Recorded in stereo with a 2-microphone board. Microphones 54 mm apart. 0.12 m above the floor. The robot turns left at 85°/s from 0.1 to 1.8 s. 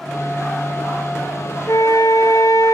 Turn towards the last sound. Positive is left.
turn(degrees=70)  # may be behind; listen again after turning